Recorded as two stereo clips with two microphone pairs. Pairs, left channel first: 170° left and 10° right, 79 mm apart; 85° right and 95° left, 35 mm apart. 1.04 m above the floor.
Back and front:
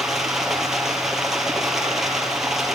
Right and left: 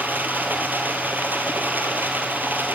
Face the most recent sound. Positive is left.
turn(degrees=75)